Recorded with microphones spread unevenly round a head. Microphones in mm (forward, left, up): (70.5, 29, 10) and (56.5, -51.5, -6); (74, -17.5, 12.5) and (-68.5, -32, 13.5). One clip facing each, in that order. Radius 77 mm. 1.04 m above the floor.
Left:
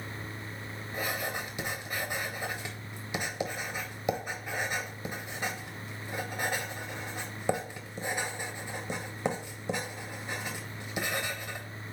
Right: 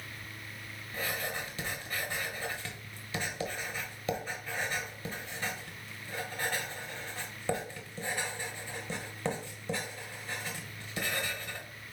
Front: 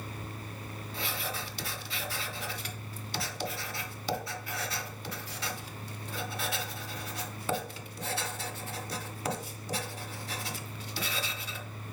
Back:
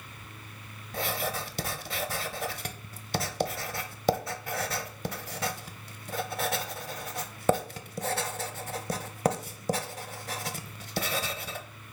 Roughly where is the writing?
Behind.